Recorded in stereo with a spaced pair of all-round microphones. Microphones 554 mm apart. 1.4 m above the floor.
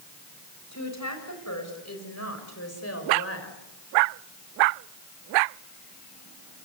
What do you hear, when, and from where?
0.7 s a woman speaking: 30° left (ahead or behind), 7 m; by 3.6 s 25° left (ahead or behind), 5.5 m